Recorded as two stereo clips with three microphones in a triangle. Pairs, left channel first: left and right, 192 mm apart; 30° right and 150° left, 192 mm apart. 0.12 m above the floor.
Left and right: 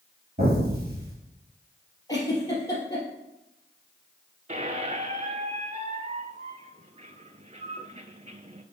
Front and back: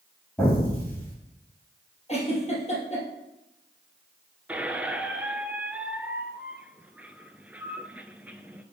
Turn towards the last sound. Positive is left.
turn(degrees=-130)